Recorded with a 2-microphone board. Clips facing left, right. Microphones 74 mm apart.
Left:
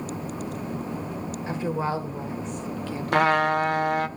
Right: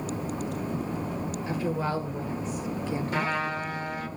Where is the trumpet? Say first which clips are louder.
Left 12 dB; 70° left (ahead or behind), 0.7 m.